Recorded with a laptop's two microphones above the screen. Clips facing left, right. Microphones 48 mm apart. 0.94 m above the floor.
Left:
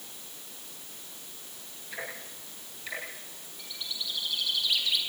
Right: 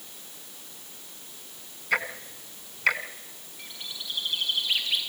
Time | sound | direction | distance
1.9 | ticking | 70° right (ahead or behind) | 1.9 m
3.6 | a bird | 25° right (ahead or behind) | 6.5 m